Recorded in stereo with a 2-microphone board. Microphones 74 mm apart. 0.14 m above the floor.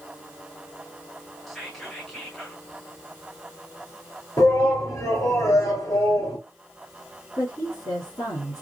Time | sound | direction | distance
1.5 | whispering | centre (ahead or behind) | 1.5 m
4.4 | a shout | 45° left (ahead or behind) | 3 m
7.4 | a woman speaking | 50° left (ahead or behind) | 3 m